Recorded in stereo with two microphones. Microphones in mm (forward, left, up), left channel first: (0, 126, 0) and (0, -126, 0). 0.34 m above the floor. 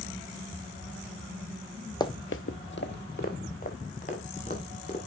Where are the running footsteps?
15° left (ahead or behind), 0.7 m; by 5.0 s 25° left (ahead or behind), 4 m.